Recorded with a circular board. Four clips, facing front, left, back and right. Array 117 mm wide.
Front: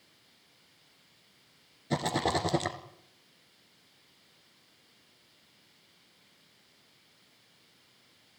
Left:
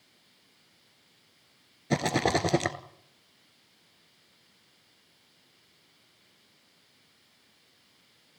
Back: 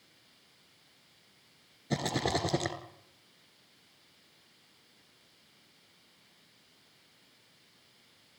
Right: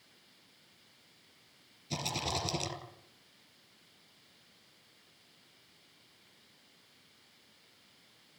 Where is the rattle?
85° left, 2 m.